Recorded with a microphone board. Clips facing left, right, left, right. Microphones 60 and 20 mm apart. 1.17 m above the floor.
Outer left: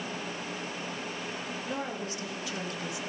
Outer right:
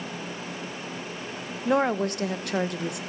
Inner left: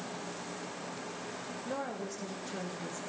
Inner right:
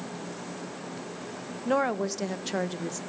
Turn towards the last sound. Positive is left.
turn(degrees=-60)  # may be behind; listen again after turning